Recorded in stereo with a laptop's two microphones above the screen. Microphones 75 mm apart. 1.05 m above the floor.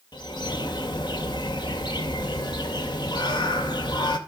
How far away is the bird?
About 2 m.